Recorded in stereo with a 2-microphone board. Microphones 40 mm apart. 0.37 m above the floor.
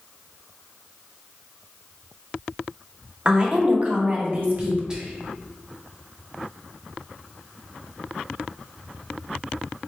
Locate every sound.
3.2 s a woman speaking: 25° right (ahead or behind), 1.0 m; by 4.8 s 50° right (ahead or behind), 1.5 m
4.9 s whispering: 20° right (ahead or behind), 0.9 m